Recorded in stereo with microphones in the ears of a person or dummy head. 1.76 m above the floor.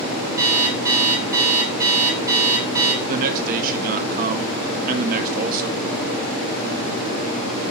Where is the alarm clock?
20° right (ahead or behind), 2.5 m.